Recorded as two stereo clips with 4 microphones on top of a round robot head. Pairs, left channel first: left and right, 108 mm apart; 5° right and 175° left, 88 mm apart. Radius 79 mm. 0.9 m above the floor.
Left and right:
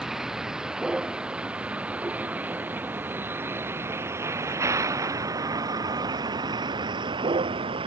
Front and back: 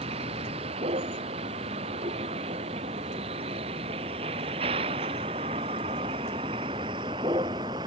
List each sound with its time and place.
0.0 s a vehicle: 175° right; by 7.9 s 130° right